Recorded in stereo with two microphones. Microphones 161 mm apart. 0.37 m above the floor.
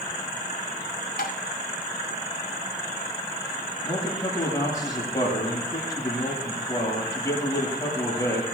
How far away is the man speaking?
About 8 m.